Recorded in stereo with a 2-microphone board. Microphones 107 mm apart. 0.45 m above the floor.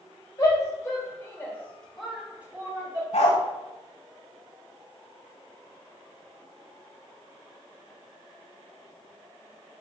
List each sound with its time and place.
0.4 s a shout: 30° left (ahead or behind), 2 m; by 3.0 s 35° right (ahead or behind), 1.2 m
3.1 s a dog barking: 80° left, 1.1 m